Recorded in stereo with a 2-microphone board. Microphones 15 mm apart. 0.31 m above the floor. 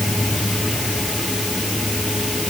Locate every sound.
Only background noise.